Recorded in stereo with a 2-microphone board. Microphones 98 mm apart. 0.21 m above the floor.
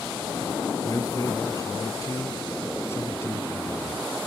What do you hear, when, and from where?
0.8 s a man speaking: 40° left (ahead or behind); by 4.1 s 20° left (ahead or behind)